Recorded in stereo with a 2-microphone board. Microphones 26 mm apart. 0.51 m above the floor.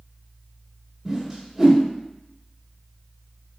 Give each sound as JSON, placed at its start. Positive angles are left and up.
{"t": 1.1, "sound": "a whoosh", "side_deg": -20, "distance_m": 1.0}